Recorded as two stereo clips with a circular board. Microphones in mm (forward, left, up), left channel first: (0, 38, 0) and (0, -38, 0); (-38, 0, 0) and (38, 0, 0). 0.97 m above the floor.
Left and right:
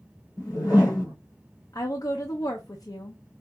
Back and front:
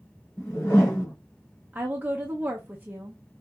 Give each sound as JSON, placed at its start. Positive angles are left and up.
{"t": 0.4, "sound": "a whoosh", "azimuth_deg": 125, "distance_m": 3.0}
{"t": 1.7, "sound": "a woman speaking", "azimuth_deg": 65, "distance_m": 0.6}